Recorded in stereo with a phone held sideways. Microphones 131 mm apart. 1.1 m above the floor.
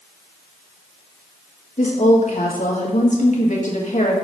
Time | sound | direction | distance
1.8 | a woman speaking | 70° left (ahead or behind) | 1.8 m